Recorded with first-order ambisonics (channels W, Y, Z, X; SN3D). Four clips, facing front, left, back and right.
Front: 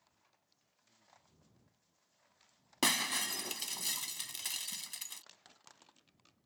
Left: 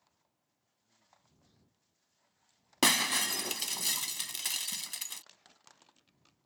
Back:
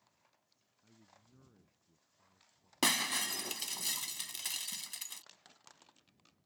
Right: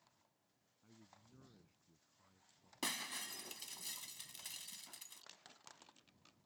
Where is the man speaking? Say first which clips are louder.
Right 3 dB, back 3 dB; 135° right; by 2.7 s 130° right.